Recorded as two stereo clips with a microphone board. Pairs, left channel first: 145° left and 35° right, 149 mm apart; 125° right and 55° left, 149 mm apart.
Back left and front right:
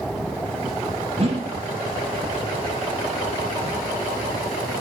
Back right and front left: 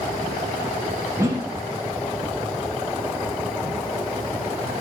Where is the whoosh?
5° right, 0.9 m.